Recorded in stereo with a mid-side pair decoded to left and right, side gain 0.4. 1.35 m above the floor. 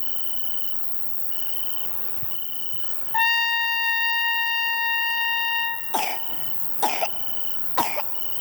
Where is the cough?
25° left, 0.6 m.